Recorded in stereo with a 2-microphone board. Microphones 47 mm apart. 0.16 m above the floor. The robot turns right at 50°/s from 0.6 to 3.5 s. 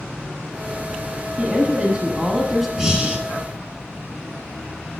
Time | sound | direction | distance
1.4 | a woman speaking | 25° right (ahead or behind) | 1.1 m
2.8 | breathing | 15° right (ahead or behind) | 1.0 m